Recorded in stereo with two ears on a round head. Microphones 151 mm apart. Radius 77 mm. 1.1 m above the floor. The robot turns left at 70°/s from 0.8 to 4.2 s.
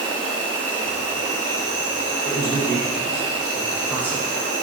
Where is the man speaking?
45° right (ahead or behind), 0.8 m; by 4.3 s 20° left (ahead or behind), 0.8 m.